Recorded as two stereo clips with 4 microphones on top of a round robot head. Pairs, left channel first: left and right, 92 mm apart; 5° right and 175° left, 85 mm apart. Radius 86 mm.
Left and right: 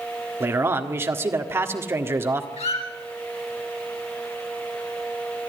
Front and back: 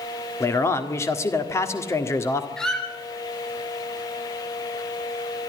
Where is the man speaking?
40° right, 1.7 m.